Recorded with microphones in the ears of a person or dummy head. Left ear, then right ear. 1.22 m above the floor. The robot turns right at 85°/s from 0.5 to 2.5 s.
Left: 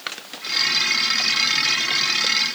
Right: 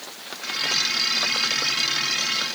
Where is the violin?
I don't hear a violin.